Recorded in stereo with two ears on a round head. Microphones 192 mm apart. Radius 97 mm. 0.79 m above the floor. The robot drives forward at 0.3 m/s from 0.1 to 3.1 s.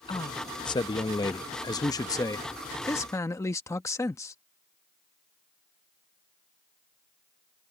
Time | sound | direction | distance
0.1 | a man speaking | 20° left (ahead or behind) | ?